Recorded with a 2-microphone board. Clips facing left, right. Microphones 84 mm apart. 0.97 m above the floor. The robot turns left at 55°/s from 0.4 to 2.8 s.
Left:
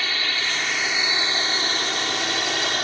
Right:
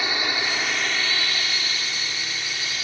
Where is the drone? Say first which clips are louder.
Right 2 dB; 160° right; by 2.8 s 70° left.